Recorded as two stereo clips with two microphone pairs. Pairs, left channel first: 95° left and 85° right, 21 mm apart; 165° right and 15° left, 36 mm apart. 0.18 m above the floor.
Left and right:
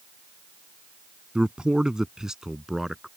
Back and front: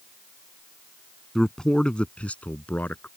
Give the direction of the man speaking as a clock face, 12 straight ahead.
3 o'clock.